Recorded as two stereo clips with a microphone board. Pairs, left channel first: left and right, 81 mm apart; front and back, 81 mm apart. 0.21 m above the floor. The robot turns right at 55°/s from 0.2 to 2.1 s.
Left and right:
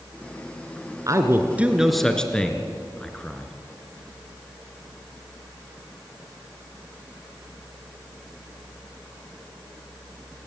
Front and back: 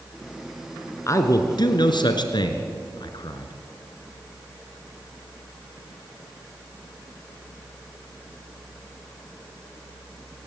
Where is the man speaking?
50° right, 2.5 m; by 3.5 s 10° left, 2.5 m.